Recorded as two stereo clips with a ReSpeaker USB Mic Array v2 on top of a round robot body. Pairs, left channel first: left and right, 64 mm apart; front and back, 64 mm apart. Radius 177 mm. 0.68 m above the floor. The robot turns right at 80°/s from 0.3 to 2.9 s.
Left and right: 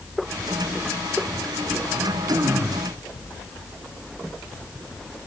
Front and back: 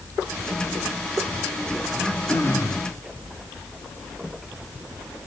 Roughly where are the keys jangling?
No keys jangling in this recording.